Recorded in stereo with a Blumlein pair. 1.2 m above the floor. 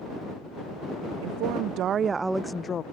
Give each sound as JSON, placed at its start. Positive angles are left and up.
{"t": 1.2, "sound": "a woman speaking", "azimuth_deg": -50}